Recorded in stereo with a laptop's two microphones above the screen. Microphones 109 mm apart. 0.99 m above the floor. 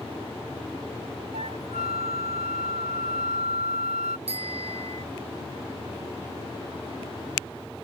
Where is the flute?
90° right.